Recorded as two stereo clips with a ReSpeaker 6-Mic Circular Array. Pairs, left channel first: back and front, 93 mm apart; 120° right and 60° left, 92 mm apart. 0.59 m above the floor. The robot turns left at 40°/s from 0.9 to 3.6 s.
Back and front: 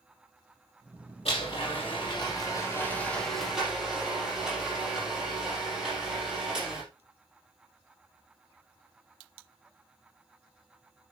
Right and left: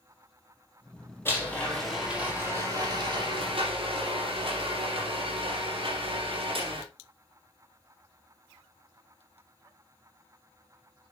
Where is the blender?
175° left, 5.5 m; by 6.8 s 80° left, 5.5 m.